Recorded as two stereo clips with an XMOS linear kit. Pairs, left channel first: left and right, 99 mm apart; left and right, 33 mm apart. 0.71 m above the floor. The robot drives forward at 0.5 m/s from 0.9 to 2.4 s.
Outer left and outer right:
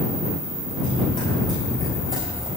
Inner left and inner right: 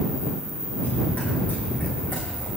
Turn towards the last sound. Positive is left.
turn(degrees=70)  # may be behind; listen again after turning